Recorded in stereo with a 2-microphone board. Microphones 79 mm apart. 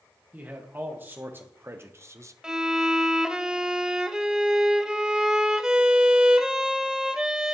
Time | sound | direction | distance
0.3 | a man speaking | 25° right (ahead or behind) | 1.9 m
2.4 | a violin | 10° right (ahead or behind) | 0.5 m